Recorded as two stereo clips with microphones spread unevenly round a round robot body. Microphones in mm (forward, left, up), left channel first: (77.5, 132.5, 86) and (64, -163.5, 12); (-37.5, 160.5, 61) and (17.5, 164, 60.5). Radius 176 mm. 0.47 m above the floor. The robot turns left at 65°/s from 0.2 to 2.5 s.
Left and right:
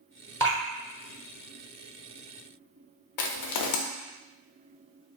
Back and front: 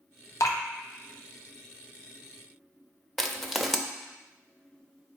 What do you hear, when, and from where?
0.4 s dripping: straight behind, 0.7 m; by 0.6 s 165° left, 0.7 m
3.2 s crushing: 95° left, 0.5 m